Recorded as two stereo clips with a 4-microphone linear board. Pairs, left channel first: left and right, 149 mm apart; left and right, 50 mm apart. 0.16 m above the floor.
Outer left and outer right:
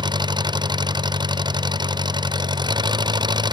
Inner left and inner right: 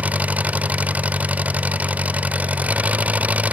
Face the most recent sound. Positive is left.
turn(degrees=-30)  # may be behind; listen again after turning